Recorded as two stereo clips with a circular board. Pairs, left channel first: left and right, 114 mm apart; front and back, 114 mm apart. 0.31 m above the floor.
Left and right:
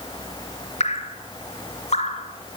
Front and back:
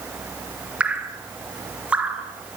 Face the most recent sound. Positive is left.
turn(degrees=100)